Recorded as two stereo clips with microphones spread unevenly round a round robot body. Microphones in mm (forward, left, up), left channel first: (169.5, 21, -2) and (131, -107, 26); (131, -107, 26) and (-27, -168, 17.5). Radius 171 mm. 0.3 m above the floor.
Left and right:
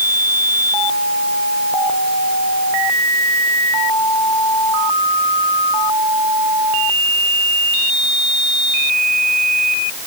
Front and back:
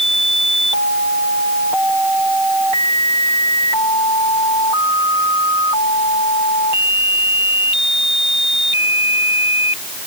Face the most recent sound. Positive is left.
No sound to turn to.